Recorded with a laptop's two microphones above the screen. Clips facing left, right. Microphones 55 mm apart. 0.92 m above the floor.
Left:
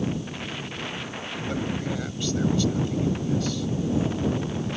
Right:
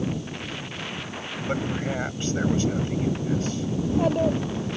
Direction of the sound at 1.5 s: 35° right (ahead or behind).